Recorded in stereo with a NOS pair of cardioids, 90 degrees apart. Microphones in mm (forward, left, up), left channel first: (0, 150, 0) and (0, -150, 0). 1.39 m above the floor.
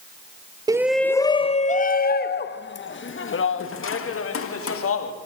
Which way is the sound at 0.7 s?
15° right.